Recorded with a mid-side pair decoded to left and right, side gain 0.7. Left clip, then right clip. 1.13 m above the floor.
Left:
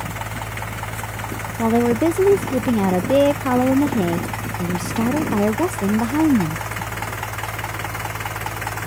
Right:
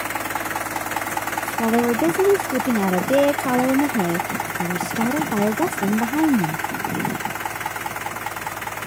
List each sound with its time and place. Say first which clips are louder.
0.0 s a fan: right 4 dB; 50° left
1.6 s a woman speaking: left 2 dB; 10° left